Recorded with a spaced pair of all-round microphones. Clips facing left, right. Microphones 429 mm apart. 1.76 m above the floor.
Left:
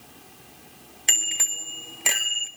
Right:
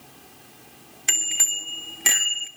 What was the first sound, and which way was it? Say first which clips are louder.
A bicycle bell: even; 20° right (ahead or behind).